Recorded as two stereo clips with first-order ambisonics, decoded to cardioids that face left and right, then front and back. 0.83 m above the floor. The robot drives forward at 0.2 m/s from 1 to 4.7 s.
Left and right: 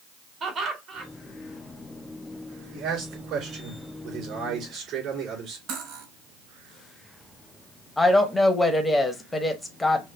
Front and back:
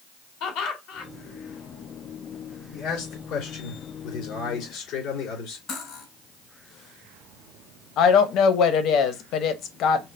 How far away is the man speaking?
About 3.5 m.